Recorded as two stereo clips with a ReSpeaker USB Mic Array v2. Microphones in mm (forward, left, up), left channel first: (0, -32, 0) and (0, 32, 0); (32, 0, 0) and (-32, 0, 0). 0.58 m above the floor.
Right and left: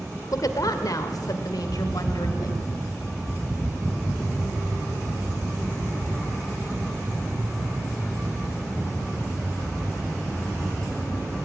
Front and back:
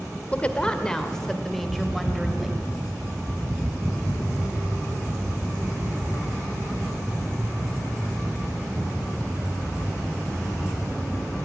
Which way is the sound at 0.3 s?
70° right.